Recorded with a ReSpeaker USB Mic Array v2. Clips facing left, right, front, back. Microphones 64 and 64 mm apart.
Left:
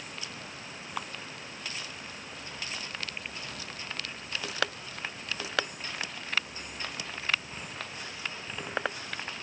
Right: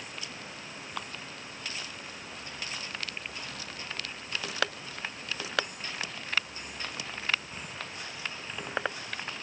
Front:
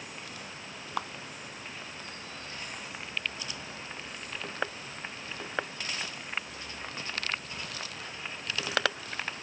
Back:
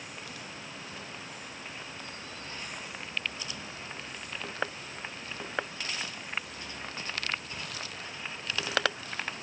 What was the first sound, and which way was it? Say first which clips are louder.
A clap: left 2 dB, front 11 dB; 10° left.